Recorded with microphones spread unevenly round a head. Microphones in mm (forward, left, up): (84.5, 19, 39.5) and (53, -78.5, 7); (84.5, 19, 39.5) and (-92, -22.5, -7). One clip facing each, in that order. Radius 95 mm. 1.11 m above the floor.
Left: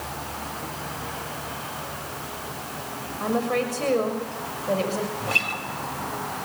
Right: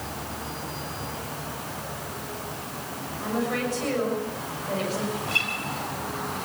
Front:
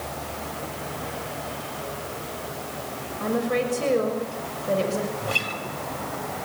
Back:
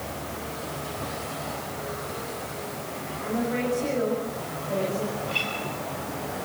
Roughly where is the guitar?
Ahead left.